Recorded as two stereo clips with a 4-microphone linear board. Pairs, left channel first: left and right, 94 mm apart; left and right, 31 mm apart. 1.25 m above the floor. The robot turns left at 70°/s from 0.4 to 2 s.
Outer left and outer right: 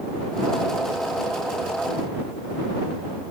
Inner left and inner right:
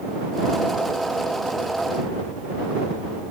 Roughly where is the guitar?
I don't hear a guitar.